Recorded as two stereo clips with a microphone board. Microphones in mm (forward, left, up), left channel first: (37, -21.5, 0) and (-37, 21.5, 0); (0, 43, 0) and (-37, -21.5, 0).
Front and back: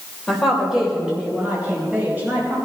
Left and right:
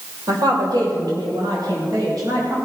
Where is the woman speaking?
120° right, 2.5 m; by 2.6 s 145° right, 4 m.